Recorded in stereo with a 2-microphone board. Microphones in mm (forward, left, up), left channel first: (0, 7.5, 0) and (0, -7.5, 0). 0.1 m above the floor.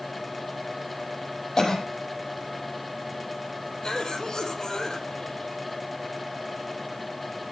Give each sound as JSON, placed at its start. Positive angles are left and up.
{"t": 1.6, "sound": "a cough", "side_deg": 45, "distance_m": 5.0}
{"t": 3.8, "sound": "a cough", "side_deg": 45, "distance_m": 4.0}